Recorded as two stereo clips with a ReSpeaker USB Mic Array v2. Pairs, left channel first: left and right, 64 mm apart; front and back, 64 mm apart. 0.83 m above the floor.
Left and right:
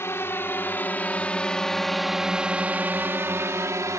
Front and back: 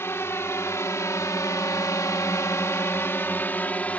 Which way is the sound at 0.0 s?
45° left.